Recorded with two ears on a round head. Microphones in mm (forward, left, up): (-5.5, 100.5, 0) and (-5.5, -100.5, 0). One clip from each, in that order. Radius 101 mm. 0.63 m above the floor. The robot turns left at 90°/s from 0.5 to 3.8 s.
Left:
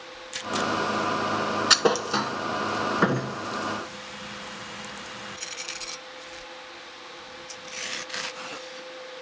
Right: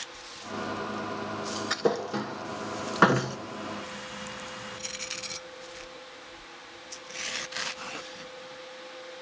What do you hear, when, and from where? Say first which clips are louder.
1.7 s a thud: left 7 dB; 75° left (ahead or behind), 1.5 m; by 3.4 s 55° right (ahead or behind), 1.5 m